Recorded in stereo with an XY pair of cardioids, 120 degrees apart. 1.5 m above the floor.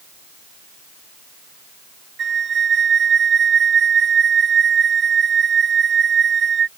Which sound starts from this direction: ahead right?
A flute, at 2.2 s.